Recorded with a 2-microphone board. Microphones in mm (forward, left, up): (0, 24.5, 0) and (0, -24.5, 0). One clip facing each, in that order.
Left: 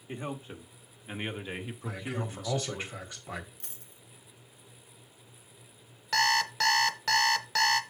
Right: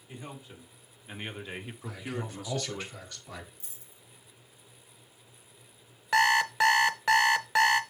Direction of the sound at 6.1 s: 20° right (ahead or behind).